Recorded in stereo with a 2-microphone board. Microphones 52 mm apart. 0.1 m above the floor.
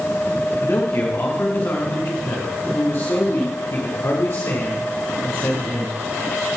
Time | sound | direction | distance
0.6 | a man speaking | 60° left (ahead or behind) | 7 m